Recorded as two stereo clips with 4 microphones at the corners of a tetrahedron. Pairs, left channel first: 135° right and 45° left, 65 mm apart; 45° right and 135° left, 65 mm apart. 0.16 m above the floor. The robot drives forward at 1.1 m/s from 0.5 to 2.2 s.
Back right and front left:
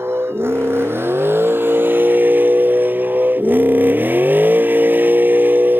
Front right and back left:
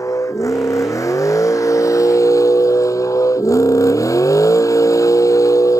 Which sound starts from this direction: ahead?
A vehicle, at 0.0 s.